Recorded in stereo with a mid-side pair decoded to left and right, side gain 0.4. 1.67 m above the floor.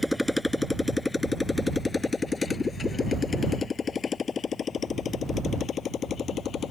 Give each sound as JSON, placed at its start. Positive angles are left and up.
{"t": 0.0, "sound": "a motorcycle", "azimuth_deg": 15}